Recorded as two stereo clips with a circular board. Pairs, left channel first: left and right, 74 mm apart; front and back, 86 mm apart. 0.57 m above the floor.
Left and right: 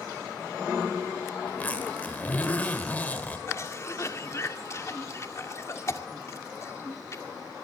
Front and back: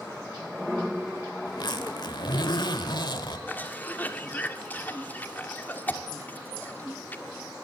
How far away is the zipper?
About 1.6 m.